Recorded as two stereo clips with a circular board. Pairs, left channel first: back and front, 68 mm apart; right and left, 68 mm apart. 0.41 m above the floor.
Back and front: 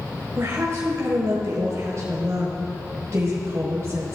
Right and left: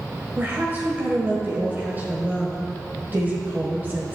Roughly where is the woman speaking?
Ahead left.